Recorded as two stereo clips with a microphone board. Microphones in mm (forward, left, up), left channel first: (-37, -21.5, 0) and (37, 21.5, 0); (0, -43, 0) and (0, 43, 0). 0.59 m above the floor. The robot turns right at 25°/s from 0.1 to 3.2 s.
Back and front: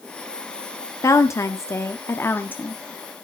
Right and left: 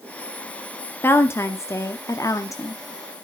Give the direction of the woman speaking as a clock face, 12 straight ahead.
5 o'clock.